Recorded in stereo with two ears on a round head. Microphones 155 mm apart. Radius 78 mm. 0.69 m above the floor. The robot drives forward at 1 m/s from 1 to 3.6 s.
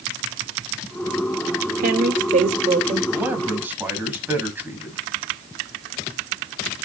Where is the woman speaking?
55° right (ahead or behind), 1.8 m; by 3.0 s 35° right (ahead or behind), 2.5 m.